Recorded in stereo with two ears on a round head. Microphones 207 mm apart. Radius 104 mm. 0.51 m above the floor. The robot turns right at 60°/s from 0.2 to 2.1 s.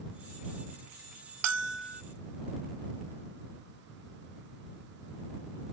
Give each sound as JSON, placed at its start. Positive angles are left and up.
{"t": 1.4, "sound": "a bell", "azimuth_deg": -80}